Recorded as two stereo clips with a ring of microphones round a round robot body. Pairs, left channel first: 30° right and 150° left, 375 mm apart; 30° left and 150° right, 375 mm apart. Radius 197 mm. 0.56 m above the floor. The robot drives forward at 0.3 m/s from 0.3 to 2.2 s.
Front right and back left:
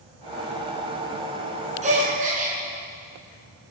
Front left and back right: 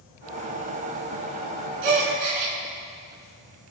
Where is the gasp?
140° right, 3 m.